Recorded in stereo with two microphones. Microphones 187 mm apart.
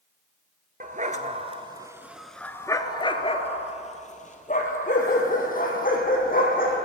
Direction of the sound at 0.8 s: 45° right (ahead or behind).